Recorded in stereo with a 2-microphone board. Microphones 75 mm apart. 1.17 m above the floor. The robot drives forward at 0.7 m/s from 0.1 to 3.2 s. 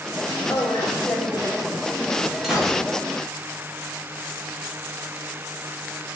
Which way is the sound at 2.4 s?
5° right (ahead or behind).